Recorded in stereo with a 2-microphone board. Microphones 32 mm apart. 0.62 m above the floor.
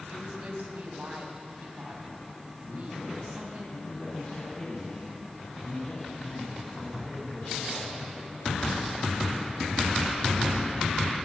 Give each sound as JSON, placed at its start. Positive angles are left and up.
{"t": 0.1, "sound": "a woman speaking", "side_deg": -65, "distance_m": 4.5}
{"t": 2.6, "sound": "a man speaking", "side_deg": 45, "distance_m": 5.5}